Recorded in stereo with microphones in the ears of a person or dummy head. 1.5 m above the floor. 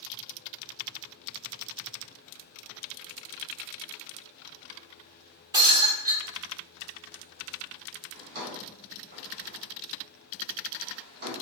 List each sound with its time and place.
5.5 s breaking glass: 20° right (ahead or behind), 1.2 m
8.1 s a drawer: 50° right (ahead or behind), 1.3 m